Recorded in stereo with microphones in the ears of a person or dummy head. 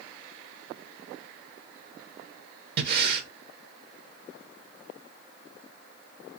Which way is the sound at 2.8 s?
60° right (ahead or behind).